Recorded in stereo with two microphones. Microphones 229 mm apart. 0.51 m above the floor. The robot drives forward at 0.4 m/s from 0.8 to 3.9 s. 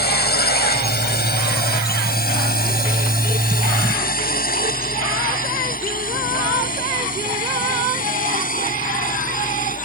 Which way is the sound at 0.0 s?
45° left (ahead or behind).